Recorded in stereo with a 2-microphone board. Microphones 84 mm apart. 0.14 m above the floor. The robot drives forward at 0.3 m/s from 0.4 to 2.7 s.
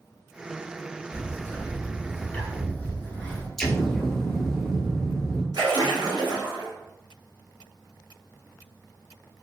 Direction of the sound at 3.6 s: 5° left (ahead or behind).